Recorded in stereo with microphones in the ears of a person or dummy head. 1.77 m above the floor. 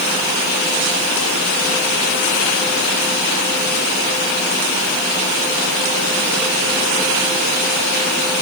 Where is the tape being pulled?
I don't hear tape being pulled.